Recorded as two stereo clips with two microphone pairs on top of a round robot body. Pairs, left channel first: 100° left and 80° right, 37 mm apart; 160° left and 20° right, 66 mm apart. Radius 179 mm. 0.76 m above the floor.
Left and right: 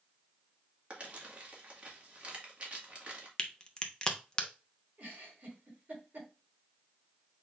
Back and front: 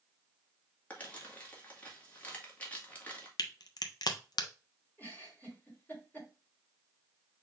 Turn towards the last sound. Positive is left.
turn(degrees=-135)